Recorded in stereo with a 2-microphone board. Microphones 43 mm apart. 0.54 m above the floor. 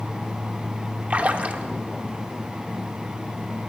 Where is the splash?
35° right (ahead or behind), 0.7 m.